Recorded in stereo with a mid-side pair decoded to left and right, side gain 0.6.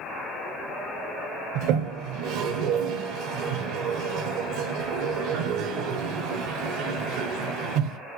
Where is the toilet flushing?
70° right, 0.5 m.